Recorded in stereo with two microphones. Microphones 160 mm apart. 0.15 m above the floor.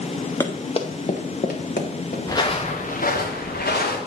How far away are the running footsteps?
About 1.1 m.